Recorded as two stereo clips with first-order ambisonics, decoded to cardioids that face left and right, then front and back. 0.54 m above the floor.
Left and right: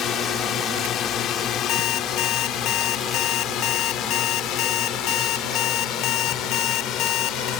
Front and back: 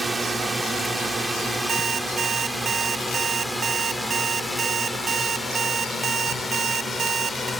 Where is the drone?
105° left; by 7.6 s 70° left.